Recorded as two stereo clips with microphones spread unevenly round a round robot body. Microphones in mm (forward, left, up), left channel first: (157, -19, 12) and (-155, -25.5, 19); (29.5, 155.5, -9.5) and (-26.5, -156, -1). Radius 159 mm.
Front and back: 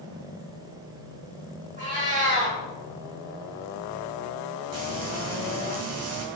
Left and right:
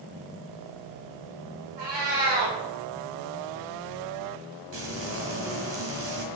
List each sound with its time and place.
1.8 s a cat meowing: 110° right, 3.5 m
4.7 s frying: 145° right, 2 m